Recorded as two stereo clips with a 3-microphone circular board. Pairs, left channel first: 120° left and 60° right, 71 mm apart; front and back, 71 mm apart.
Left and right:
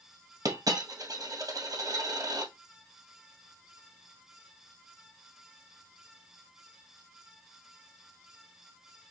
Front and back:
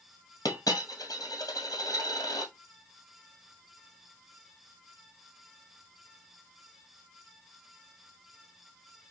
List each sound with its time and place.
0.5 s a dropped coin: 35° right, 1.7 m